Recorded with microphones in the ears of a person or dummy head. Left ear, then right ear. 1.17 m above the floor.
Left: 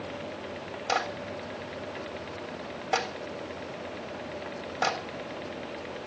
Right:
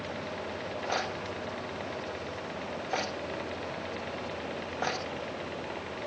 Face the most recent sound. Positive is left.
turn(degrees=80)